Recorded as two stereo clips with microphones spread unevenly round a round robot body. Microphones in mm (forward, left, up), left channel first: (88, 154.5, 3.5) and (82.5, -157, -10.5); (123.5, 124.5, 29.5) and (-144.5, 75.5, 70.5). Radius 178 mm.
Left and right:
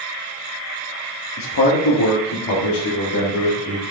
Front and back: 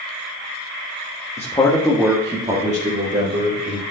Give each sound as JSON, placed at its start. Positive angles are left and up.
{"t": 1.4, "sound": "a man speaking", "azimuth_deg": 65, "distance_m": 1.4}